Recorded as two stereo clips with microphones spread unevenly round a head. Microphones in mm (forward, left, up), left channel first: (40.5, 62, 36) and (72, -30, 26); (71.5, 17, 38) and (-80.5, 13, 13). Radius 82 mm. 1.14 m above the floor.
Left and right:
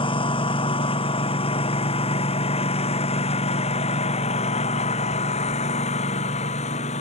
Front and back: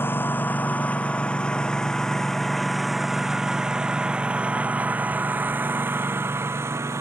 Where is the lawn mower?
80° left; by 7.0 s 110° left.